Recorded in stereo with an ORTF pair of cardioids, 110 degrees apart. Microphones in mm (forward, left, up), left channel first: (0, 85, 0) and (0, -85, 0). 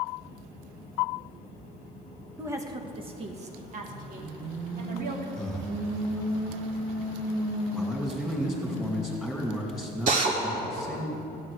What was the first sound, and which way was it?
A woman speaking, 10° right.